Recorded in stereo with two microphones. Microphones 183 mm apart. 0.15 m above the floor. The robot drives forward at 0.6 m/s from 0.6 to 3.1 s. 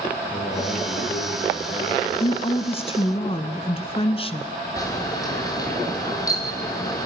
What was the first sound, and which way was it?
A man speaking, 40° left (ahead or behind).